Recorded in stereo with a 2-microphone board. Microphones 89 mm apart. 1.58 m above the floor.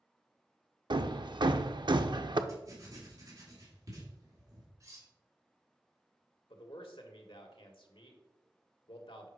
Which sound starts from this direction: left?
A man speaking, at 6.5 s.